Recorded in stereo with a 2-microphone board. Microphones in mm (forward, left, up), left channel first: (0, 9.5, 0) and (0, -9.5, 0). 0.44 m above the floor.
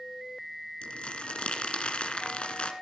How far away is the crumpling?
About 1.6 m.